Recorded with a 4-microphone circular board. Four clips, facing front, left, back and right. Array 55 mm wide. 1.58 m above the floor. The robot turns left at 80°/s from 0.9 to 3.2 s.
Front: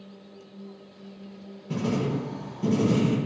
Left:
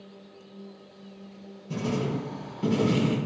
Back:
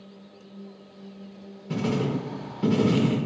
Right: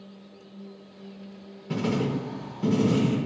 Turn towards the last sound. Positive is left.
turn(degrees=130)